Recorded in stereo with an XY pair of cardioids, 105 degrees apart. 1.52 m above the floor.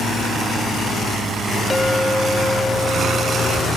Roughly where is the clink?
Ahead.